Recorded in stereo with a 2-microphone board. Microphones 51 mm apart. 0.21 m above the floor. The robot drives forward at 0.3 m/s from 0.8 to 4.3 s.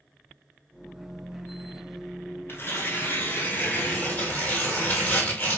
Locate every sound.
2.5 s tearing paper: 45° left (ahead or behind), 1.2 m; by 5.6 s 30° left (ahead or behind), 1.6 m